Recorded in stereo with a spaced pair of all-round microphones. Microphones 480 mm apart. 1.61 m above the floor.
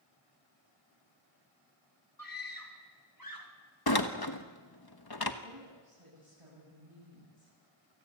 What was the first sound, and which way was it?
A scream, 40° left (ahead or behind).